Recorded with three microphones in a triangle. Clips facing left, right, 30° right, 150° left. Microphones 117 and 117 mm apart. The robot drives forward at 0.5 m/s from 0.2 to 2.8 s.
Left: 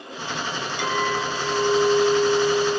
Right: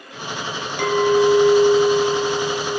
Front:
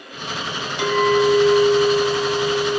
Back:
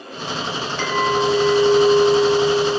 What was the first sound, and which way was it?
A clink, 105° right.